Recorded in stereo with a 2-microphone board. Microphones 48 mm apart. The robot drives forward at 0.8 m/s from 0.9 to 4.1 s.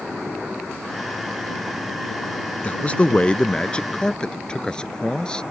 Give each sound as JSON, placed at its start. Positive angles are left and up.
{"t": 2.6, "sound": "a man speaking", "side_deg": 30}